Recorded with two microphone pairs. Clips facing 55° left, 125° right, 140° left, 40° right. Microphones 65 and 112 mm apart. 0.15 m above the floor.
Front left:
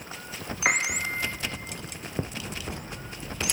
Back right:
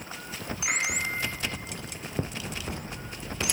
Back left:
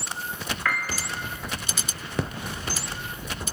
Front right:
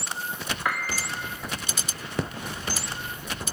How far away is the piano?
About 2.5 m.